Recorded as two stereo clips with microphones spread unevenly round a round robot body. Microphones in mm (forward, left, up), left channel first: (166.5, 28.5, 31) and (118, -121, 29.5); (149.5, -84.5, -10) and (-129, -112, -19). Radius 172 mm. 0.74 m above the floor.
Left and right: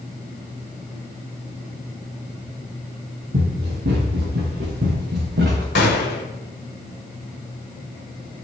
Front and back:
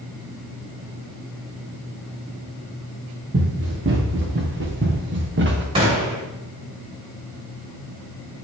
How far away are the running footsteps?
About 4.5 m.